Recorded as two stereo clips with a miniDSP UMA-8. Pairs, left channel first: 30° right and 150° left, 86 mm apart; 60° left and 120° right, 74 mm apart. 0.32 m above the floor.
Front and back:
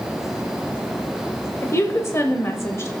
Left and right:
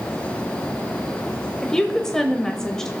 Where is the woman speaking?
15° right, 1.0 m.